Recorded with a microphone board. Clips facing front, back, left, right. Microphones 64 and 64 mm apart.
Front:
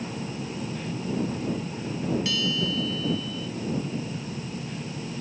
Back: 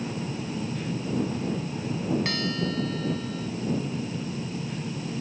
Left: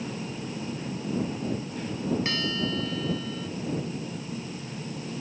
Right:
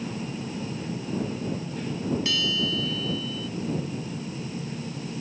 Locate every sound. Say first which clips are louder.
2.2 s a bell: even, right 1 dB; 140° left